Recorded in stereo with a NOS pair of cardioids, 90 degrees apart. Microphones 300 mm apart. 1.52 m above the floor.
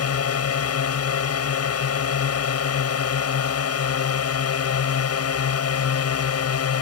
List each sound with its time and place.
0.0 s a drone: 50° left